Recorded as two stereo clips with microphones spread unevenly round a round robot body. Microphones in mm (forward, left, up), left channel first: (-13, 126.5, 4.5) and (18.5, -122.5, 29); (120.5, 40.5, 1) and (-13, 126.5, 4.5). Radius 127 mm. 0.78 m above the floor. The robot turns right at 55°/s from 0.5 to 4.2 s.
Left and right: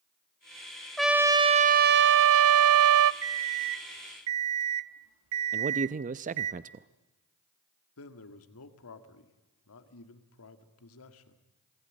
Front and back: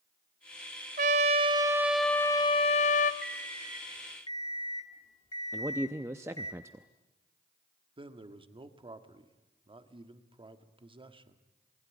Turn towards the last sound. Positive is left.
turn(degrees=95)